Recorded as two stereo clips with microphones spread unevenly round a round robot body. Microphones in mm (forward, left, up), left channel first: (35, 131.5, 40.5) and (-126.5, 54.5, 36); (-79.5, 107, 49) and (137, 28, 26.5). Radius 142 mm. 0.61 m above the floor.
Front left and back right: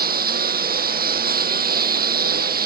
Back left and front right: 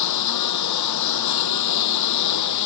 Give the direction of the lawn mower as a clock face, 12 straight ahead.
6 o'clock.